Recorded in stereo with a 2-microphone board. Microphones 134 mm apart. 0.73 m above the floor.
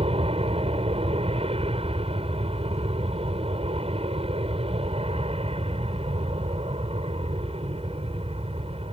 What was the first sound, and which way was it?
An aircraft, 45° right (ahead or behind).